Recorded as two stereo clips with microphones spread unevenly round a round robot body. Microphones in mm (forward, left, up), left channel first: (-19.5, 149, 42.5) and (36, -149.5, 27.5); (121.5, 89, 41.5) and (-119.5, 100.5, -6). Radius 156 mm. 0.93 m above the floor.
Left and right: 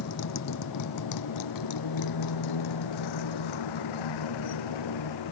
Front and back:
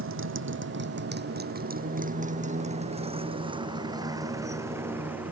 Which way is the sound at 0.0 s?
145° left.